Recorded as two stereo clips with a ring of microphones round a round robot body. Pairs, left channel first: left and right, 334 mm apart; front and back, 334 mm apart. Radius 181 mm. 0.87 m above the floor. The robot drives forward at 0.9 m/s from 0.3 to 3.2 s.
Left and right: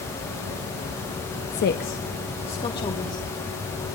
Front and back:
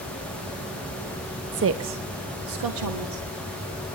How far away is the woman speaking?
About 0.8 m.